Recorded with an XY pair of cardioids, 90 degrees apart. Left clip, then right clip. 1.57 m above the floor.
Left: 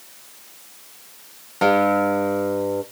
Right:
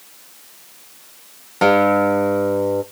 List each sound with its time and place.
1.6 s a guitar: 25° right, 0.8 m